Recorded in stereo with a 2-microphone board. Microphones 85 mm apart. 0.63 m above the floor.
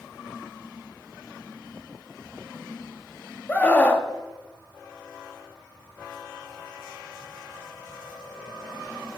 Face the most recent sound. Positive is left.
turn(degrees=20)  # may be behind; listen again after turning